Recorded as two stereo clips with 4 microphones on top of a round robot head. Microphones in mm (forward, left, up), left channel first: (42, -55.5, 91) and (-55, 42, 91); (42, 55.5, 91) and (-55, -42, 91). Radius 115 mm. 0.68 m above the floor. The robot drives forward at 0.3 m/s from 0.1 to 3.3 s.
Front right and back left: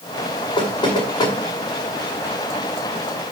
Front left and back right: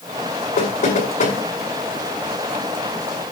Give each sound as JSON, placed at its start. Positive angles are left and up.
{"t": 0.6, "sound": "knocking", "azimuth_deg": 15, "distance_m": 6.0}